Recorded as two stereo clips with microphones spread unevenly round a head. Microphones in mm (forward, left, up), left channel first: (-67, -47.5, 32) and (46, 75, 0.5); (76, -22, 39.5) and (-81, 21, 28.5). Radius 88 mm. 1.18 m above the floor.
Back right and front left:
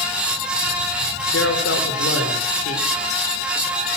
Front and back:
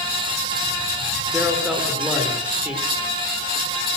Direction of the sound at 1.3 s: 110° right.